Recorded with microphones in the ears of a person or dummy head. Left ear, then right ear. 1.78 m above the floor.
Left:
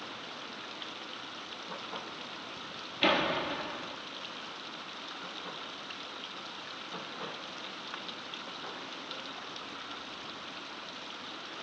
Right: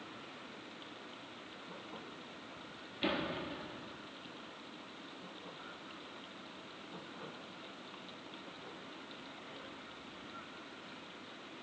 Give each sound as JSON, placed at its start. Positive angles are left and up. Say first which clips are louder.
{"t": 0.0, "sound": "running water", "louder": "left 8 dB", "side_deg": 60}
{"t": 3.0, "sound": "a door slam", "louder": "left 10 dB", "side_deg": 35}